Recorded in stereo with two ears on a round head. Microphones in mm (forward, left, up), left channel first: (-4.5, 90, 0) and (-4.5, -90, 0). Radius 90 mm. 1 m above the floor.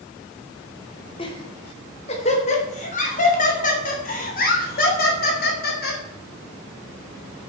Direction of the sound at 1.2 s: 25° left (ahead or behind).